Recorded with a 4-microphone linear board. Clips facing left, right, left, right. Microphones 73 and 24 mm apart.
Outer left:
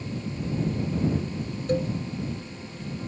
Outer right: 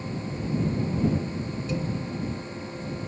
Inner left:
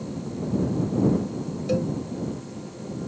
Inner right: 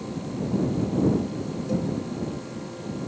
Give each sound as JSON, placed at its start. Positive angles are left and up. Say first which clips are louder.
{"t": 1.7, "sound": "a cowbell", "louder": "outer left 6 dB, inner left 3 dB", "side_deg": 50}